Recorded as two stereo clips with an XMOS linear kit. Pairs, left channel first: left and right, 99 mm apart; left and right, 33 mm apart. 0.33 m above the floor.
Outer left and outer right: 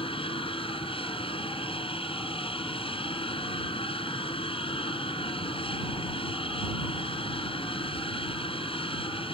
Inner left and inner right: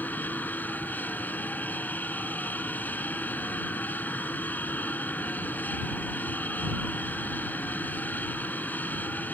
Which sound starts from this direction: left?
An aircraft, at 0.0 s.